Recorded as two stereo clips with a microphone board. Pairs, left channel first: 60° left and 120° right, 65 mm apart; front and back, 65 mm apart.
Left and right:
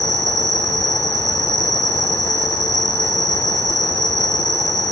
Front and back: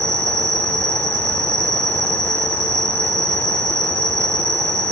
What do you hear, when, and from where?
0.0 s an insect: 140° right, 1.1 m